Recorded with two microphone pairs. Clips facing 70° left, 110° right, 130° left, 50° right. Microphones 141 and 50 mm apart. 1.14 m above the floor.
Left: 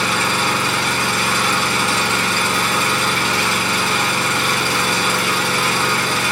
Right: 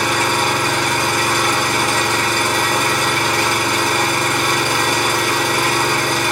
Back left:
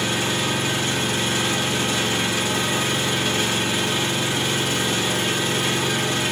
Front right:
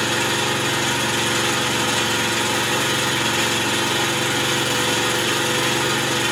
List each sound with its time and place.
0.0 s an engine running: 60° right, 1.7 m